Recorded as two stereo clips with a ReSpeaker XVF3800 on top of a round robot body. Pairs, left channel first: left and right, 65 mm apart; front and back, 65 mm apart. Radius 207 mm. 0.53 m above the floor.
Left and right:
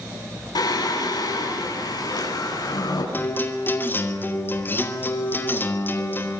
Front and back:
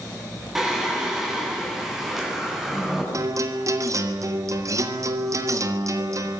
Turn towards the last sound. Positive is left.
turn(degrees=145)